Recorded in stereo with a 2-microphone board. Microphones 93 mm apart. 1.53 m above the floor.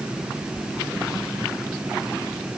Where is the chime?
No chime in this recording.